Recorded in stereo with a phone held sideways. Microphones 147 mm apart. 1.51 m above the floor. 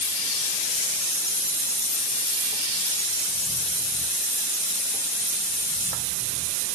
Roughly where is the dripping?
No dripping in this recording.